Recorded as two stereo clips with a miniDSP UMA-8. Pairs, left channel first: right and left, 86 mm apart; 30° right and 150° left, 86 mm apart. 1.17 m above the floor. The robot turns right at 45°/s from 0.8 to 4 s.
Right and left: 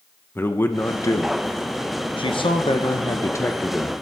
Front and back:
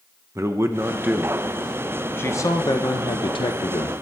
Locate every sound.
0.3 s a man speaking: 155° right, 0.8 m; by 3.9 s 15° right, 0.8 m